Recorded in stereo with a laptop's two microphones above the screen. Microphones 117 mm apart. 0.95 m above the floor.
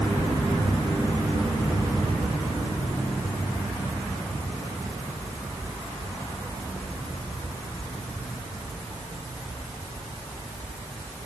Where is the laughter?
No laughter in this recording.